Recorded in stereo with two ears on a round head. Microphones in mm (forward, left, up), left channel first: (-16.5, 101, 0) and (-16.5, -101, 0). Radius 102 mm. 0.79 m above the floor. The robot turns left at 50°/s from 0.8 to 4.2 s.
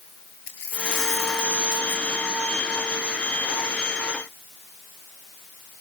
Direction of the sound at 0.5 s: 45° left.